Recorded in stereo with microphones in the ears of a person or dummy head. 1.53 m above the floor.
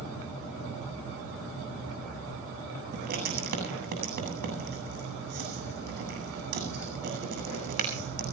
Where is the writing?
55° right (ahead or behind), 7.5 m.